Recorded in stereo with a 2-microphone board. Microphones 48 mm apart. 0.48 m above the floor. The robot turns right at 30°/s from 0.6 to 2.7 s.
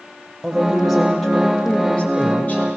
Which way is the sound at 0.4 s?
15° right.